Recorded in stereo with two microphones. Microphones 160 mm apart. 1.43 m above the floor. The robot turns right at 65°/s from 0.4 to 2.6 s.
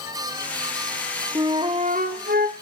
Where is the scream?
No scream in this recording.